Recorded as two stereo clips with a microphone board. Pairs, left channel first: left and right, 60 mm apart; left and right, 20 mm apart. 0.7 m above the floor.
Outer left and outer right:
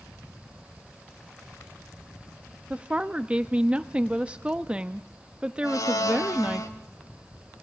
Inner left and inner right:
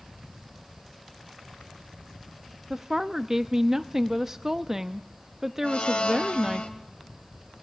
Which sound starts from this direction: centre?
A woman speaking, at 2.7 s.